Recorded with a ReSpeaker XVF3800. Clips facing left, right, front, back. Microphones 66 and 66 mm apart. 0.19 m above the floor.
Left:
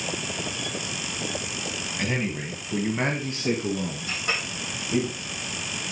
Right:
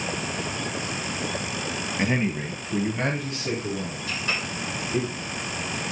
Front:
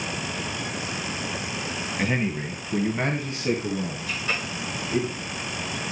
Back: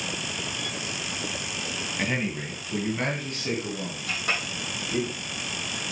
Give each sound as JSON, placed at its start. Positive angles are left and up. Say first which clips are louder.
{"t": 2.0, "sound": "a man speaking", "louder": "right 3 dB, front 3 dB", "azimuth_deg": -85, "distance_m": 1.4}
{"t": 4.1, "sound": "a clink", "louder": "right 2 dB, back 3 dB", "azimuth_deg": 140, "distance_m": 4.5}